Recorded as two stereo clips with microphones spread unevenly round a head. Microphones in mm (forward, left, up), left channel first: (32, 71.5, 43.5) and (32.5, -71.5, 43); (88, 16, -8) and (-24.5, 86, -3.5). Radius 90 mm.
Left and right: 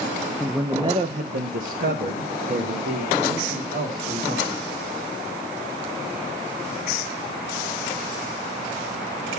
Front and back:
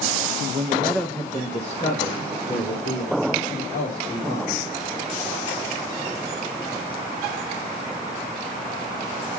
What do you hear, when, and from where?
0.4 s a man speaking: 175° left, 0.6 m; by 4.6 s 65° right, 3.5 m